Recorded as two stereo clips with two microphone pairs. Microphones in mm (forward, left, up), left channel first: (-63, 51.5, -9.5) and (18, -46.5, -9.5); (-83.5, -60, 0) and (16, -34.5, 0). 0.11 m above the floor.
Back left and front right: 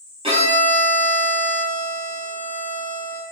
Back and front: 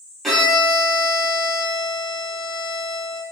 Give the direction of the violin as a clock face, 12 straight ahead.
3 o'clock.